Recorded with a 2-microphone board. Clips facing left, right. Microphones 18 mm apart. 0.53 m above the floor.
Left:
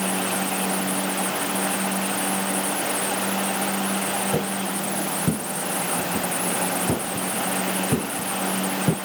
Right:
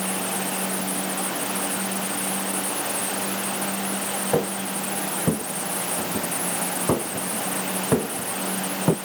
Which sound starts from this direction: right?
Footsteps, at 4.3 s.